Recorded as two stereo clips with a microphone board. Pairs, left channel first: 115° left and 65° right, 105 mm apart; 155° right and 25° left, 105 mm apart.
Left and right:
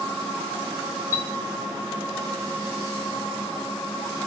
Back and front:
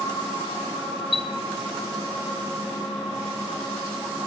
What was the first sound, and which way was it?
A chime, 60° left.